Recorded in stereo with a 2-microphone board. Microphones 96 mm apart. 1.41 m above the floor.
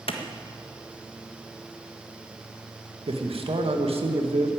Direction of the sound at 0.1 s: 70° left (ahead or behind).